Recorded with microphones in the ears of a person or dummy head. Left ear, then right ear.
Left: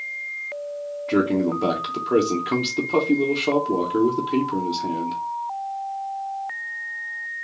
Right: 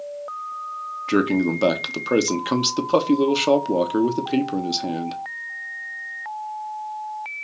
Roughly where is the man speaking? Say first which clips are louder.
Right 1 dB; right.